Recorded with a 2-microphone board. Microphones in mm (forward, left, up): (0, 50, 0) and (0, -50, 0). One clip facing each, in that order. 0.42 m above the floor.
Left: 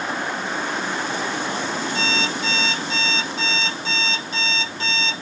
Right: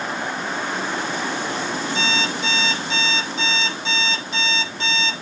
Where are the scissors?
I don't hear scissors.